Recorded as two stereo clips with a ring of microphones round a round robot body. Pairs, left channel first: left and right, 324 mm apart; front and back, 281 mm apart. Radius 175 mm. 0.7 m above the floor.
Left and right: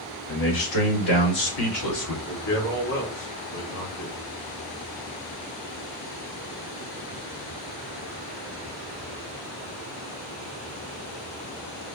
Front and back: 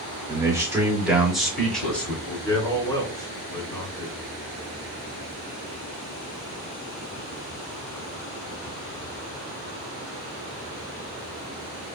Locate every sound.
0.3 s a man speaking: 105° left, 2 m; by 2.2 s 85° left, 2.5 m
2.3 s a man speaking: 75° left, 2 m